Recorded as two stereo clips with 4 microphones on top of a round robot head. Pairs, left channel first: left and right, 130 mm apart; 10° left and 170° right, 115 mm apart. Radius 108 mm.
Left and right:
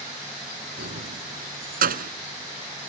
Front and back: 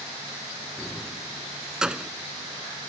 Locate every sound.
0.8 s keys jangling: 80° right; by 2.1 s 90° right